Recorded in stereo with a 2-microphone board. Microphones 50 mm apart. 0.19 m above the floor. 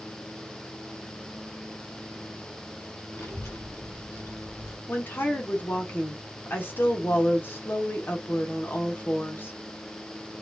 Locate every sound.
3.1 s a child speaking: 55° left (ahead or behind), 1.7 m
4.9 s a woman speaking: 40° left (ahead or behind), 1.5 m